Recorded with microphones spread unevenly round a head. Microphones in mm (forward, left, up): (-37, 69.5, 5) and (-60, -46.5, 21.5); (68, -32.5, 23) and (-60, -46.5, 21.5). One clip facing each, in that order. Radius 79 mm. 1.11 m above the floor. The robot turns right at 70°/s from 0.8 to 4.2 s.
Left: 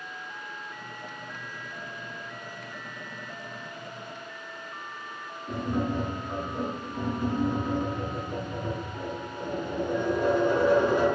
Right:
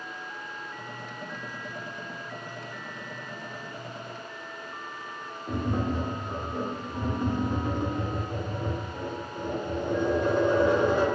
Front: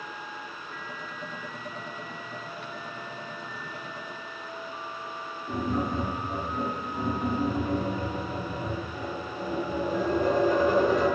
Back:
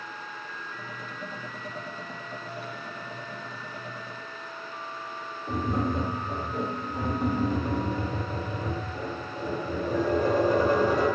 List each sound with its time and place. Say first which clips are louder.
5.5 s tapping: even, back 1 dB; 140° right, 0.8 m